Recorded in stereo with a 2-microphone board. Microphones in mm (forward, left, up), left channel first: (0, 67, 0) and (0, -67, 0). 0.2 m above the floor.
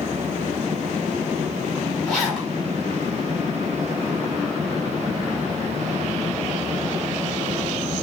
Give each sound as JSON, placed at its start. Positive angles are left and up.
{"t": 2.0, "sound": "a zipper", "side_deg": 0, "distance_m": 1.3}